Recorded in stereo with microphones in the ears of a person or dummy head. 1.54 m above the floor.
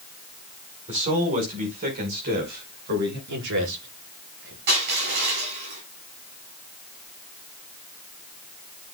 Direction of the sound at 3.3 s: 65° right (ahead or behind).